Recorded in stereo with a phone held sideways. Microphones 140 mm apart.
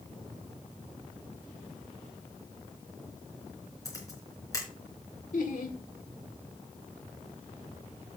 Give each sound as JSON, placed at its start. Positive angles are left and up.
{"t": 3.9, "sound": "a camera shutter", "side_deg": 25, "distance_m": 3.5}
{"t": 5.3, "sound": "laughter", "side_deg": 70, "distance_m": 1.8}